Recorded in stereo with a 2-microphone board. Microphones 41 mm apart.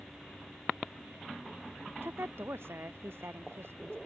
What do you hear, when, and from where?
2.0 s a woman speaking: 75° right (ahead or behind)